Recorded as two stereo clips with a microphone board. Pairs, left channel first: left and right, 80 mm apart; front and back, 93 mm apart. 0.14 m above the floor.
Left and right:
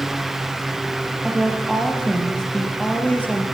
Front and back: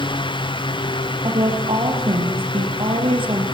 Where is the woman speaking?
175° left, 4 m; by 3.4 s 160° left, 3.5 m.